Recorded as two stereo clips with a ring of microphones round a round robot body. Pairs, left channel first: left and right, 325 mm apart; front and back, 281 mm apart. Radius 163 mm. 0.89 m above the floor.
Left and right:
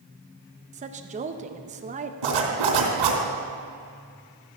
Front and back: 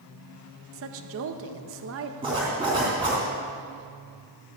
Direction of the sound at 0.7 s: 155° right.